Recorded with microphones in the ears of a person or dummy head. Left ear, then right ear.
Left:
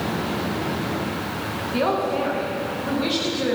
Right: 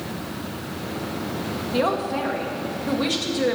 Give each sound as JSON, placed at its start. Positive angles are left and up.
{"t": 1.7, "sound": "a man speaking", "side_deg": -15, "distance_m": 1.2}